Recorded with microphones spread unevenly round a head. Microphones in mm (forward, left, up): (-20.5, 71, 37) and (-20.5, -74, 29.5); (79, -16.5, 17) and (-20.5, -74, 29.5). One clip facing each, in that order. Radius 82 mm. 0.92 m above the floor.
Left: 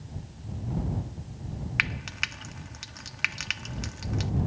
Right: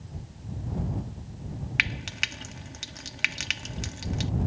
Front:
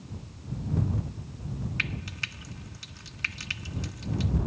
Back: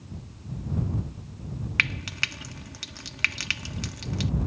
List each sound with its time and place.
1.8 s frying: 145° right